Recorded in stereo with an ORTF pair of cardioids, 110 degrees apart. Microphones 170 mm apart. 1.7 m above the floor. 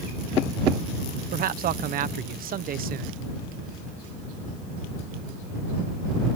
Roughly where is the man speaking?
Ahead right.